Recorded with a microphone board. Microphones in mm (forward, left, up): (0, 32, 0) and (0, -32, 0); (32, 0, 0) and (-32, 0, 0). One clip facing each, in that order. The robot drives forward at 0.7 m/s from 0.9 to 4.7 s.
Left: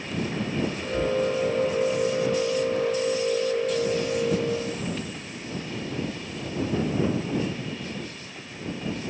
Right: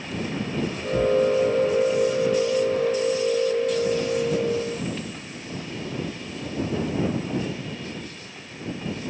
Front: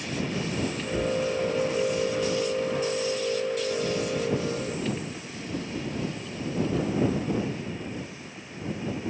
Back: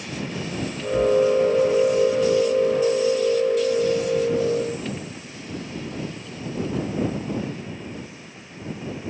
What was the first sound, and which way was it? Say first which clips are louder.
A cupboard door: right 6 dB, back 10 dB; 70° right.